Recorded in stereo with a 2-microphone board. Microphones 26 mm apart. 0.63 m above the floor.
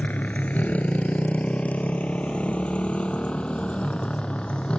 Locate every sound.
0.0 s a motorcycle: 90° left; by 4.8 s 45° left (ahead or behind)